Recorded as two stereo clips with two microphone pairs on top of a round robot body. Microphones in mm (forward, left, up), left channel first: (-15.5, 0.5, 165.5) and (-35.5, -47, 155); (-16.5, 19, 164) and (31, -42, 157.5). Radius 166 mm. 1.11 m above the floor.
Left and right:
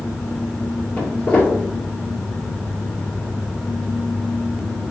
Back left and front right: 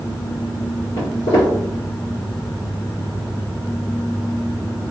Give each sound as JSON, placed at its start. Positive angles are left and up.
{"t": 1.0, "sound": "footsteps", "azimuth_deg": 110, "distance_m": 1.6}